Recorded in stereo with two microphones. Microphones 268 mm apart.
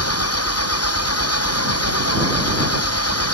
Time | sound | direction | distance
0.0 | an engine running | 65° left (ahead or behind) | ?